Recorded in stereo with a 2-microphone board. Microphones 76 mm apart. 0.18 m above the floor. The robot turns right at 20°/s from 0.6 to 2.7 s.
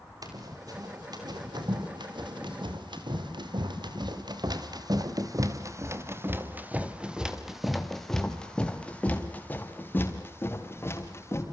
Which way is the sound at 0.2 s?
50° right (ahead or behind).